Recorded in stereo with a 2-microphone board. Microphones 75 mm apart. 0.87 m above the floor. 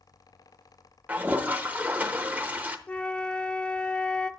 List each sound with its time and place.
1.1 s a toilet flushing: 20° right (ahead or behind), 0.8 m
2.9 s a flute: 20° left (ahead or behind), 0.5 m